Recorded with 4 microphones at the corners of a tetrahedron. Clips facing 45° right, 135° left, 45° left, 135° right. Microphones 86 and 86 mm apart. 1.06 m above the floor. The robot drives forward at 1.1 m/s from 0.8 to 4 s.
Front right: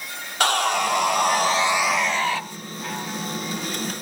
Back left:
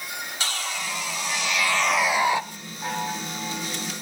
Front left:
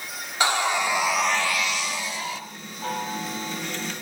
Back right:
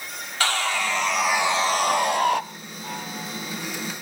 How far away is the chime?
About 8.5 m.